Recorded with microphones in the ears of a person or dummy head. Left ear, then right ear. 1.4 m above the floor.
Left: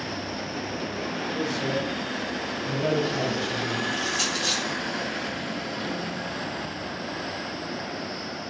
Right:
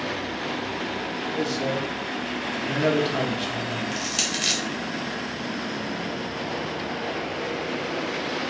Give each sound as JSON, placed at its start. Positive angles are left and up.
{"t": 1.3, "sound": "a man speaking", "side_deg": -55, "distance_m": 1.3}
{"t": 3.9, "sound": "crushing", "side_deg": -45, "distance_m": 0.8}